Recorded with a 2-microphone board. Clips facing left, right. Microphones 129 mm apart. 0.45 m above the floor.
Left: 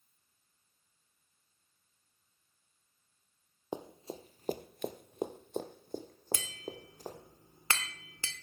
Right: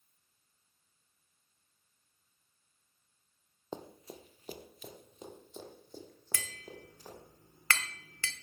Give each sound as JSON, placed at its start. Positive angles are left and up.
{"t": 3.7, "sound": "running footsteps", "side_deg": 15, "distance_m": 0.8}
{"t": 6.3, "sound": "tapping", "side_deg": 20, "distance_m": 0.9}